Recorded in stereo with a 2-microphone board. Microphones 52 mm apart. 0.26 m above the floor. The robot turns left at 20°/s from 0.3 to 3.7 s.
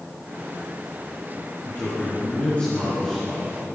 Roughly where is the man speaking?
Ahead left.